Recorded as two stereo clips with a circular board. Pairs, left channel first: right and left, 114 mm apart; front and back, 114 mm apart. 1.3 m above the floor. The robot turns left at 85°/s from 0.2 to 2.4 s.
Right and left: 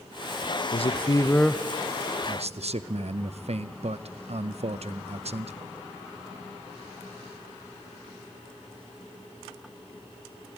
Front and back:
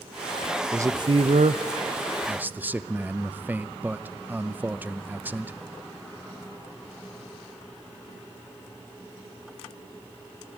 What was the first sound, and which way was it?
A man speaking, 110° right.